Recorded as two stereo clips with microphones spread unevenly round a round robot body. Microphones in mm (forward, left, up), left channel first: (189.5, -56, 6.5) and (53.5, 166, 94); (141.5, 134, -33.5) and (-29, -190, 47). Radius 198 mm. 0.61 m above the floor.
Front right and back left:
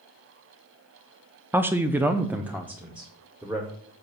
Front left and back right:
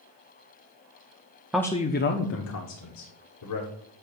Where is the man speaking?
Straight ahead, 0.5 m; by 3.7 s 30° left, 2 m.